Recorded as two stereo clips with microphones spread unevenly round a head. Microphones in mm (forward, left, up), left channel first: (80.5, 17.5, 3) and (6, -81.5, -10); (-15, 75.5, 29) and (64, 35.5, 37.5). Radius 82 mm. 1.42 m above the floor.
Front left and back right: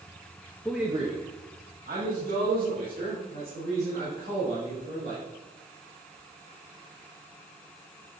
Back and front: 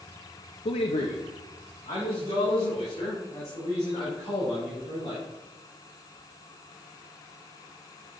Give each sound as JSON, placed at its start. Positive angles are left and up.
{"t": 0.7, "sound": "a man speaking", "azimuth_deg": 135, "distance_m": 0.6}